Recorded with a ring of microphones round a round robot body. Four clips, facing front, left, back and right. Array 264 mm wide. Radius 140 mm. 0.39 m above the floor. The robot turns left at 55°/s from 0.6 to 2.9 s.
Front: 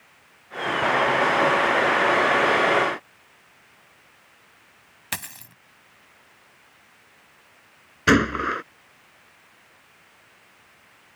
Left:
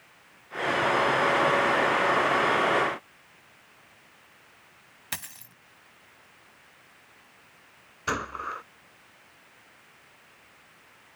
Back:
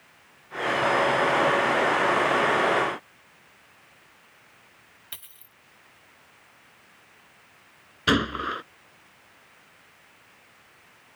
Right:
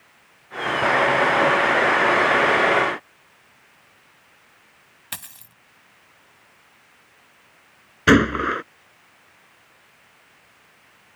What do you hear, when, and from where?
5.1 s a dropped coin: 5° left
8.1 s a gunshot: 80° right